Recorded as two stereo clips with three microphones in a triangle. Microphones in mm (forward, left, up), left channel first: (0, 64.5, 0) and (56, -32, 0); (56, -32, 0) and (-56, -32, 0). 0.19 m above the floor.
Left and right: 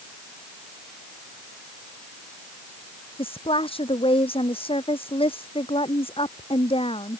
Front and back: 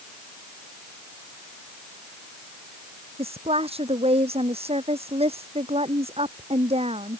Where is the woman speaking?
155° left.